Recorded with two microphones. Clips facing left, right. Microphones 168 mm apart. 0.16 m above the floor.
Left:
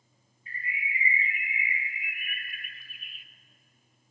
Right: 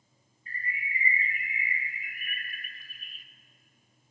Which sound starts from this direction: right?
A bird, at 0.5 s.